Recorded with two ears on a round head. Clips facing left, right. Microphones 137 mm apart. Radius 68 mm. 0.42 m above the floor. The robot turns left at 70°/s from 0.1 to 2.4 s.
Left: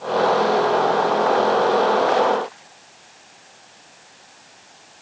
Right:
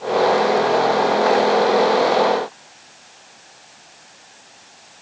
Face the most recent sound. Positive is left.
No sound to turn to.